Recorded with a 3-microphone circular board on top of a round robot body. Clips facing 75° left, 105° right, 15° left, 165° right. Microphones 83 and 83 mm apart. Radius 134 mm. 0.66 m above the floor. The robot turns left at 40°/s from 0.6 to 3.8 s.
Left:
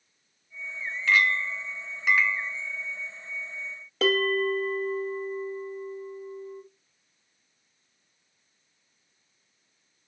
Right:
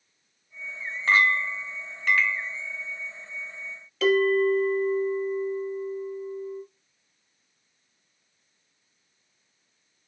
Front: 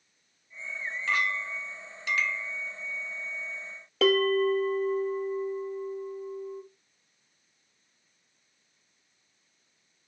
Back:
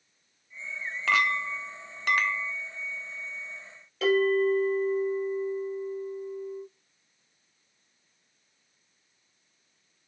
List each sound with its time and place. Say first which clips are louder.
1.1 s a clink: right 2 dB, back 4 dB; 165° right, 0.9 m; by 2.5 s 140° left, 0.9 m
4.0 s a bell: right 4 dB, even; 25° left, 2.5 m